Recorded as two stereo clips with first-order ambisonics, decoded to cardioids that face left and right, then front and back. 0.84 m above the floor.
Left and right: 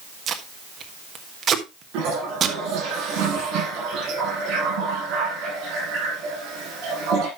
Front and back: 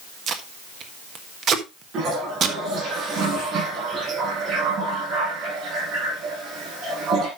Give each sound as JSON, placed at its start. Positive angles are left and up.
{"t": 0.3, "sound": "tape being pulled", "azimuth_deg": -140, "distance_m": 1.2}
{"t": 1.9, "sound": "a toilet flushing", "azimuth_deg": -125, "distance_m": 8.0}